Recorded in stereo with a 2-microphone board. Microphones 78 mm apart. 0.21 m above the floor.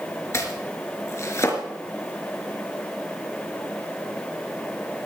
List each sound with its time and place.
0.3 s chopping: 35° left (ahead or behind), 3.5 m